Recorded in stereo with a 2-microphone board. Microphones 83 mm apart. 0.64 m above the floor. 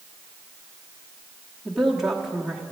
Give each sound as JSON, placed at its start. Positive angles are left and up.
{"t": 1.6, "sound": "a woman speaking", "side_deg": -5, "distance_m": 1.1}